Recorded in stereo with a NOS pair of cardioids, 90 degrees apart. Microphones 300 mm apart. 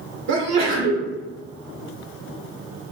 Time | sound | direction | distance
0.3 | a sneeze | 65° right | 1.5 m